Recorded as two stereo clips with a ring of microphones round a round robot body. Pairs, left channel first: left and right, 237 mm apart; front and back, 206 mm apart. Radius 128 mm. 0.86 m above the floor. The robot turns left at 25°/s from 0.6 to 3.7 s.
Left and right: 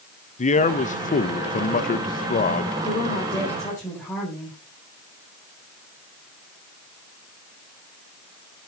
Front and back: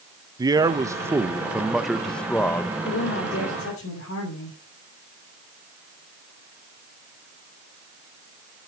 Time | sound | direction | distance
0.4 | a man speaking | 120° left | 0.9 m
2.9 | a woman speaking | 30° left | 4 m